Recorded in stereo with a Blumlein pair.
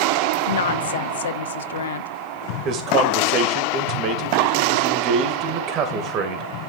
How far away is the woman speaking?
About 0.8 m.